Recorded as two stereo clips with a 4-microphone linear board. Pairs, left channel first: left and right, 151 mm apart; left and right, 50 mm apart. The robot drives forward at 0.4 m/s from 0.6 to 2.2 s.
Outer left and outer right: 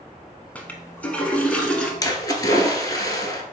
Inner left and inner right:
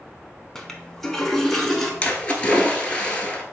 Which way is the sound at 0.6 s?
10° left (ahead or behind).